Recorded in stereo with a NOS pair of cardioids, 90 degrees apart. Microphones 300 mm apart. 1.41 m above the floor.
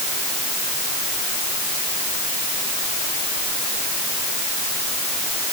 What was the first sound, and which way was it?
Only background noise.